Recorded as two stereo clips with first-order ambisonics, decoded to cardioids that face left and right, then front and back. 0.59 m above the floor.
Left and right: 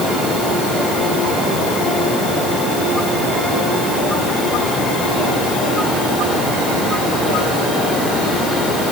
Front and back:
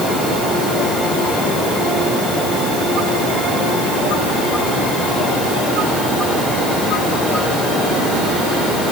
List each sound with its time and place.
Only background noise.